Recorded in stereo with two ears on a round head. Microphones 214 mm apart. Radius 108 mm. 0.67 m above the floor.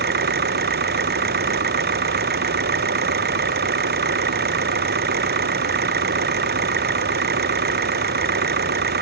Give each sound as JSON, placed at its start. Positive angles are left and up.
{"t": 0.0, "sound": "an engine running", "side_deg": -45}